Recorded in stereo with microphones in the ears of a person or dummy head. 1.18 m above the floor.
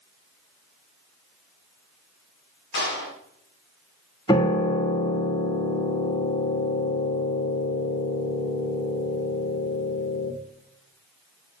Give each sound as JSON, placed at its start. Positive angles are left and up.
{"t": 2.7, "sound": "a clap", "side_deg": 75, "distance_m": 7.0}
{"t": 4.3, "sound": "a piano", "side_deg": 15, "distance_m": 1.1}